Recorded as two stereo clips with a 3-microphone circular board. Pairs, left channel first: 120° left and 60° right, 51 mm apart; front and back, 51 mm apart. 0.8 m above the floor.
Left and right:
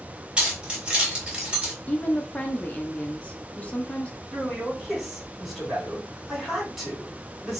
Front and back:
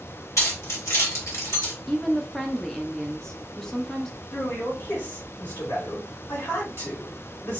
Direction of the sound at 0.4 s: 10° left.